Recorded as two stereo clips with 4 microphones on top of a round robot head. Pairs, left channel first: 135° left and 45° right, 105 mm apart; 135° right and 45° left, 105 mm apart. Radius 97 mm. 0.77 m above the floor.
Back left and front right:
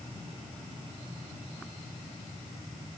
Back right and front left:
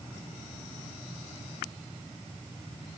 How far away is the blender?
I don't hear a blender.